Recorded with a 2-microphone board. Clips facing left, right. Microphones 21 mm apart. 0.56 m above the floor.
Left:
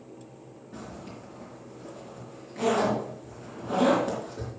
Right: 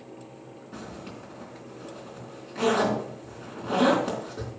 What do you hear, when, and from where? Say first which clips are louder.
0.7 s a zipper: right 1 dB; 85° right, 3.5 m